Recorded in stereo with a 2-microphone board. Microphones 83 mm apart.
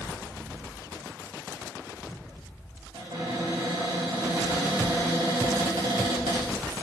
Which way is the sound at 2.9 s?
80° right.